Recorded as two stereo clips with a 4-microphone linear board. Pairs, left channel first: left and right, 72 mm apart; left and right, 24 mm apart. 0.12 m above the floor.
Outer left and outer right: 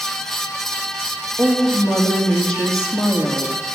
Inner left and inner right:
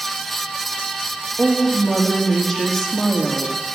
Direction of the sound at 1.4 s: 15° left (ahead or behind).